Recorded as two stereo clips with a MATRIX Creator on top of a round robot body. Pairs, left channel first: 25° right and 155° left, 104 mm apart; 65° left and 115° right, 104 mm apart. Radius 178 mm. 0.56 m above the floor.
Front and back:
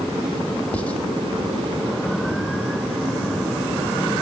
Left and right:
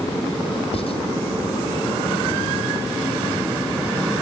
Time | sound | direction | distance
0.7 | writing | 55° left | 2.5 m